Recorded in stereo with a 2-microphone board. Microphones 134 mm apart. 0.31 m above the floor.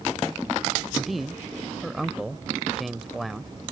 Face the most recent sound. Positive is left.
turn(degrees=0)  # may be behind; listen again after turning